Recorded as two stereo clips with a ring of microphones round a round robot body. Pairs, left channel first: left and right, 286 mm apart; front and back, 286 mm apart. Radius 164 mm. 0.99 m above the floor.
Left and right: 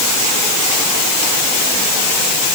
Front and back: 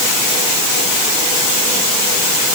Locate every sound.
Only background noise.